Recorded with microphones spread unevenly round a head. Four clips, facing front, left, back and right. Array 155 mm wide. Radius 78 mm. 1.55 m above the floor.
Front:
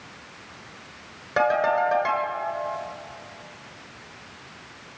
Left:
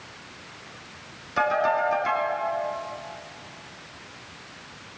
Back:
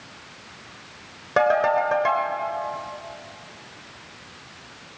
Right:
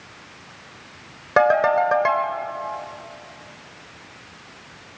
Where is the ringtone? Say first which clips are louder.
Right 6 dB, back 2 dB; 105° right, 3 m.